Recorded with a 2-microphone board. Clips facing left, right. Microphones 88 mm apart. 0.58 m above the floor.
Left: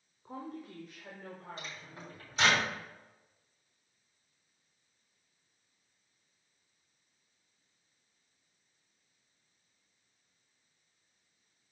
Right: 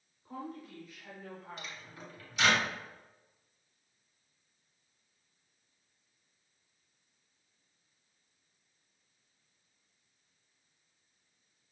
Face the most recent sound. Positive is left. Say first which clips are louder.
# left 1 dB
turn(degrees=40)  # may be behind; listen again after turning